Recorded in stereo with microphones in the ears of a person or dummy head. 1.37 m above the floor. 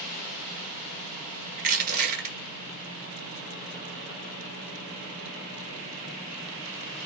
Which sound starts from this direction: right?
Crushing, at 1.6 s.